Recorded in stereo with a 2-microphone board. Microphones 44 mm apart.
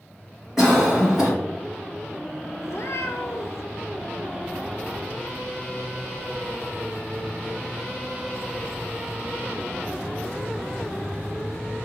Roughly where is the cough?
Centre.